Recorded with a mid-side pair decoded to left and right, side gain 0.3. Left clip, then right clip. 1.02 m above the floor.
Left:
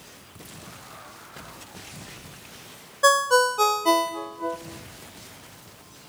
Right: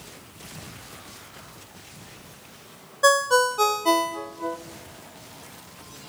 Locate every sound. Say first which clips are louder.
3.0 s a ringtone: even; 10° left, 0.6 m